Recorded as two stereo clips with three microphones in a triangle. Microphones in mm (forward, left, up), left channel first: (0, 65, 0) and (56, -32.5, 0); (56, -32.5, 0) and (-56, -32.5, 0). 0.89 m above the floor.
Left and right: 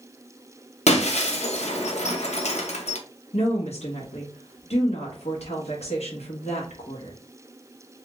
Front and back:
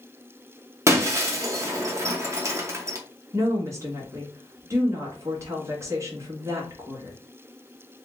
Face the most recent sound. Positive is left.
turn(degrees=120)